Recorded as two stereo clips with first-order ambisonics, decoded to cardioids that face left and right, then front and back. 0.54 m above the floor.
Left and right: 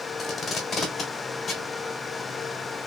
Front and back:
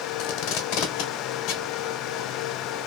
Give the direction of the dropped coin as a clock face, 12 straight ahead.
No dropped coin in this recording.